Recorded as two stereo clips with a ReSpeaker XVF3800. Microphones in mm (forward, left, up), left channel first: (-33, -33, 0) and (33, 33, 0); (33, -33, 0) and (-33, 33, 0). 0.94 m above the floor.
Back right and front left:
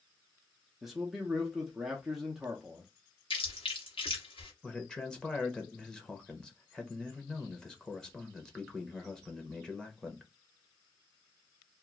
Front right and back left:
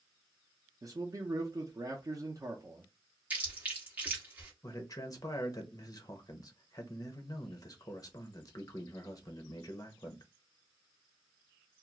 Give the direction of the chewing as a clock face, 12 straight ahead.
5 o'clock.